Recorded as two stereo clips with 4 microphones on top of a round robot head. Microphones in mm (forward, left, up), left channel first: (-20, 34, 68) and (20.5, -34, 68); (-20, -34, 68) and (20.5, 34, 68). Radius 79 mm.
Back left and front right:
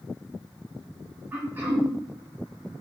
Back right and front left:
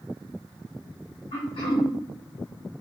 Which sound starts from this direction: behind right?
Throat clearing, at 1.3 s.